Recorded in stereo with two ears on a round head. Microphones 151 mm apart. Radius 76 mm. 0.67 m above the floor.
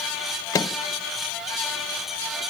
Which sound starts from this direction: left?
A microwave, at 0.5 s.